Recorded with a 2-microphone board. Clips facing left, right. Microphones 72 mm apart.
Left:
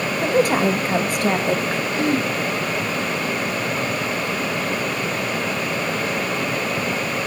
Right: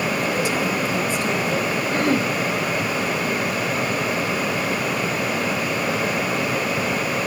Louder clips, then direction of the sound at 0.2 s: Left 4 dB; 45° left (ahead or behind).